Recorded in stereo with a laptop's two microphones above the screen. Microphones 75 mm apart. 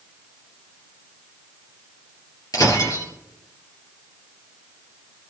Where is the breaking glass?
60° left (ahead or behind), 4 m.